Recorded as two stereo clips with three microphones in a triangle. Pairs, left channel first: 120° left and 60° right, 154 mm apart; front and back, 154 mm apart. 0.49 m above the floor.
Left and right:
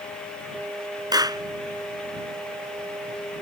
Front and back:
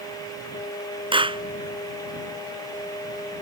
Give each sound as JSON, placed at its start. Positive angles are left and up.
{"t": 1.1, "sound": "a clap", "azimuth_deg": -125}